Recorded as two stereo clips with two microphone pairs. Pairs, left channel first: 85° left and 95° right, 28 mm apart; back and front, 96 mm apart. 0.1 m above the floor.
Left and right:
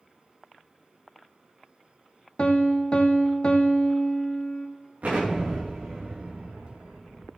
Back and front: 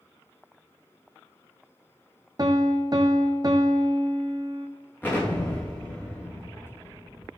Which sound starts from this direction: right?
An explosion, at 5.0 s.